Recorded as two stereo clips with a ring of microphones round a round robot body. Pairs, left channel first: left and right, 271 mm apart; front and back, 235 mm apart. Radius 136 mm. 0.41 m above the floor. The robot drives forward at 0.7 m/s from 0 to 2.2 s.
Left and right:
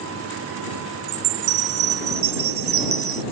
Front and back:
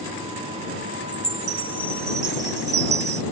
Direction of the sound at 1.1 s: 95° right.